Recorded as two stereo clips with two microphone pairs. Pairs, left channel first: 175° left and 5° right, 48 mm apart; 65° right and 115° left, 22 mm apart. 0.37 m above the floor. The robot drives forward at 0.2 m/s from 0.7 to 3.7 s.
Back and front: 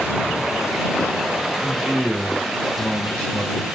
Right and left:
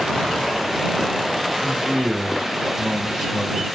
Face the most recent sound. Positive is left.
turn(degrees=140)